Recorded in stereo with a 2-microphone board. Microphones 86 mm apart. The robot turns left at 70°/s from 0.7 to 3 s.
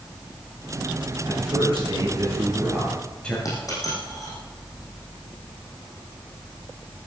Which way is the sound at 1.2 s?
70° right.